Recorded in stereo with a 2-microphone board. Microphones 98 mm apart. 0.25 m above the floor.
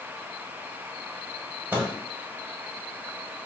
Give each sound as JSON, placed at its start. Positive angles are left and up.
{"t": 1.7, "sound": "a microwave", "side_deg": -20, "distance_m": 0.8}